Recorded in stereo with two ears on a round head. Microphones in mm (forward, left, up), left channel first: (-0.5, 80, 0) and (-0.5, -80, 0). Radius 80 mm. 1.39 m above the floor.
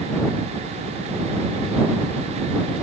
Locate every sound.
Only background noise.